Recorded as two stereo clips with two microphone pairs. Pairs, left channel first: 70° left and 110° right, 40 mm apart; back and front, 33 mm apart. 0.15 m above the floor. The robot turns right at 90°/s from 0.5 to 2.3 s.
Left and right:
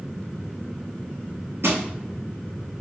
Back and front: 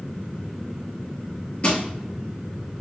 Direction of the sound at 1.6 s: 125° right.